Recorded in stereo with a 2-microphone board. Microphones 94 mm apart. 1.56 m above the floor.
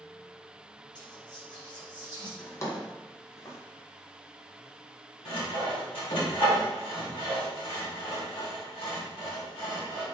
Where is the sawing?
75° left (ahead or behind), 2.5 m.